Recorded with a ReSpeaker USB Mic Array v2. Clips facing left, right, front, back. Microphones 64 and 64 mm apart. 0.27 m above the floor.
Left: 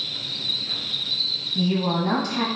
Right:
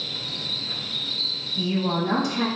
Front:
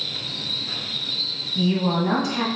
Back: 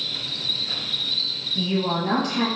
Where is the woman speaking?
90° left, 1.3 m.